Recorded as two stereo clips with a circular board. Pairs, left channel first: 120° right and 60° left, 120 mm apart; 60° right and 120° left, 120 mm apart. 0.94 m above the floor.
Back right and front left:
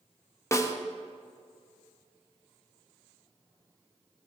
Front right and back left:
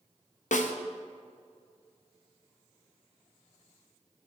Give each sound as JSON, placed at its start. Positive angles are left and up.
{"t": 0.5, "sound": "a snare drum", "azimuth_deg": -55, "distance_m": 0.5}